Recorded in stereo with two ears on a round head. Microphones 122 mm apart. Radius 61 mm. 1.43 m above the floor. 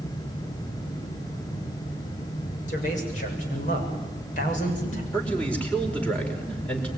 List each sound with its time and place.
2.7 s a man speaking: 60° left (ahead or behind), 6.5 m
5.1 s a man speaking: 10° left (ahead or behind), 5 m